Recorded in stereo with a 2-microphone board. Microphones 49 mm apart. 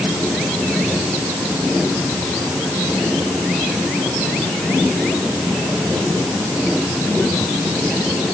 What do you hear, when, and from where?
Only background noise.